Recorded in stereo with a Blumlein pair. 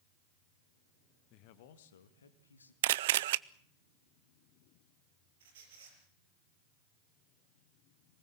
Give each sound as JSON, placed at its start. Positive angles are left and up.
{"t": 1.3, "sound": "a man speaking", "azimuth_deg": 40, "distance_m": 1.6}
{"t": 2.8, "sound": "a camera shutter", "azimuth_deg": -55, "distance_m": 0.5}
{"t": 5.4, "sound": "a squeak", "azimuth_deg": -60, "distance_m": 6.0}